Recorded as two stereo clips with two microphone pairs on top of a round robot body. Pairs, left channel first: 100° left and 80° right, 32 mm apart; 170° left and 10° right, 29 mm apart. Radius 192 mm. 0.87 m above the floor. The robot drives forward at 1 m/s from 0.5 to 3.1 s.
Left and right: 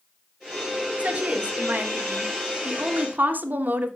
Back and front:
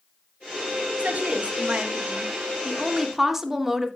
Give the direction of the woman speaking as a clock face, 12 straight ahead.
1 o'clock.